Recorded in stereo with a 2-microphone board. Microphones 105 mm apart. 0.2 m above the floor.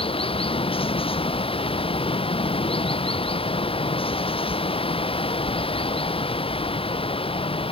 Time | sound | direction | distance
0.0 | running water | 60° left (ahead or behind) | ?